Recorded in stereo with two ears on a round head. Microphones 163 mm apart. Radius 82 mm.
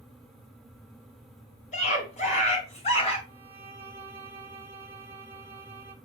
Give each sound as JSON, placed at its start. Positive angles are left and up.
{"t": 1.7, "sound": "a scream", "side_deg": 40, "distance_m": 4.5}
{"t": 3.3, "sound": "a violin", "side_deg": -15, "distance_m": 1.8}